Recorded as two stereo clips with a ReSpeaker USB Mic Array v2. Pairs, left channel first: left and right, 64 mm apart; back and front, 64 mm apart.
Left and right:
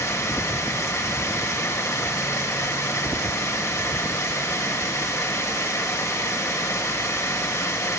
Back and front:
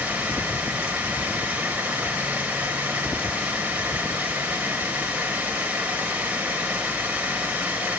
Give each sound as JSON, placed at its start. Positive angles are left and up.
{"t": 0.0, "sound": "running water", "azimuth_deg": 60, "distance_m": 2.5}